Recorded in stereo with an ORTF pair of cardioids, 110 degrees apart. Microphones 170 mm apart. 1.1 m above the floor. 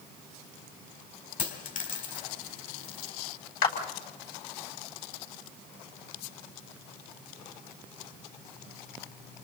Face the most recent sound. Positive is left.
turn(degrees=65)